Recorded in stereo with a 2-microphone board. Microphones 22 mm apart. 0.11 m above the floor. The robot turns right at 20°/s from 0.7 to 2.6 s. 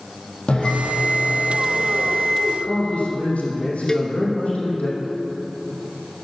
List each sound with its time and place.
0.5 s a bell: 110° left, 3.5 m; by 2.3 s 140° left, 3.5 m
2.4 s a man speaking: 75° left (ahead or behind), 4 m
3.9 s a cowbell: 25° left (ahead or behind), 0.6 m